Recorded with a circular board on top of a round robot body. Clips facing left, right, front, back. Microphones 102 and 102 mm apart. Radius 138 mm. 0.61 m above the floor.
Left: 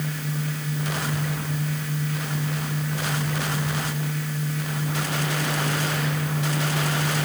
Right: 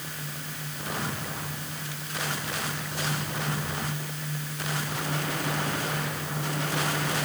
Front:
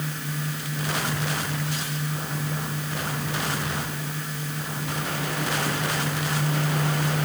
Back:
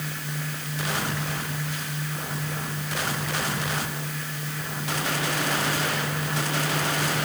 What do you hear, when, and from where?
Only background noise.